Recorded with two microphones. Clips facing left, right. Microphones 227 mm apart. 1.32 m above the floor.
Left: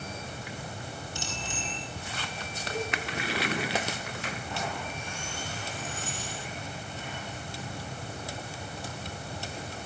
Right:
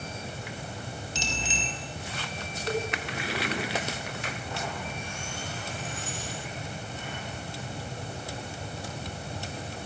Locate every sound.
1.1 s a bicycle bell: 80° right, 5.5 m
2.7 s a cowbell: 55° right (ahead or behind), 4 m